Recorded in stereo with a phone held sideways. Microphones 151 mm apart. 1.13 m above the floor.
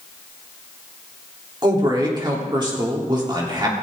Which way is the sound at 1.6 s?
30° right (ahead or behind).